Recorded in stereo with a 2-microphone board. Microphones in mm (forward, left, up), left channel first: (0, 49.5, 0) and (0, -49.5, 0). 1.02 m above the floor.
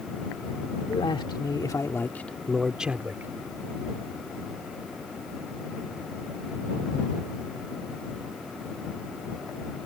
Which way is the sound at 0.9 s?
65° left (ahead or behind).